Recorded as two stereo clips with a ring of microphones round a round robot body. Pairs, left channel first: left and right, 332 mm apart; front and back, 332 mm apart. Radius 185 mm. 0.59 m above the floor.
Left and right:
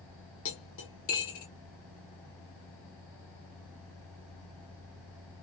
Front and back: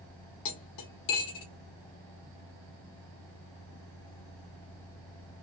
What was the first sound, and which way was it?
Cutlery clinking, 35° left.